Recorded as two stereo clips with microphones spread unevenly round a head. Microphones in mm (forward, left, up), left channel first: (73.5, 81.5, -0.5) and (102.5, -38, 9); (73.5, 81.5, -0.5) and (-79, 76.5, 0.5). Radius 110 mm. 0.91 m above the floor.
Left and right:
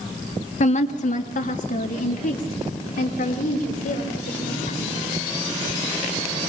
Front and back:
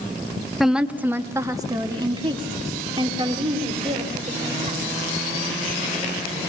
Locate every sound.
0.6 s a woman speaking: 95° left, 1.2 m; by 5.0 s 135° left, 4 m